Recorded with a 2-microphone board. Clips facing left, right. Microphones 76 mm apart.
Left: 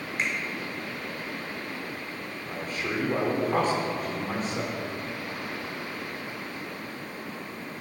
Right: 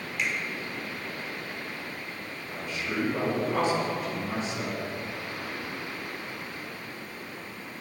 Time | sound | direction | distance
0.2 | a finger snap | 35° left (ahead or behind) | 2.5 m
2.5 | a man speaking | 45° left (ahead or behind) | 3 m